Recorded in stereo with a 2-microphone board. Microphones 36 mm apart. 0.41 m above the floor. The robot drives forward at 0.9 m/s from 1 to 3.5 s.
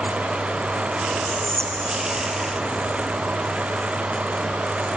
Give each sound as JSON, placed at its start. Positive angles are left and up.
{"t": 1.2, "sound": "whispering", "side_deg": 20, "distance_m": 1.3}